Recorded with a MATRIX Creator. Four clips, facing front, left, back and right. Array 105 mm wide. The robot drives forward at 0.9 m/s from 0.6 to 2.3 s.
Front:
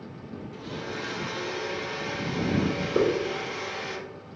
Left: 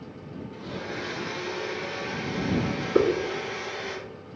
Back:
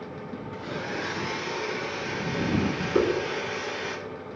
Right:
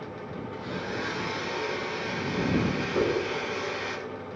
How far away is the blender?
About 0.7 m.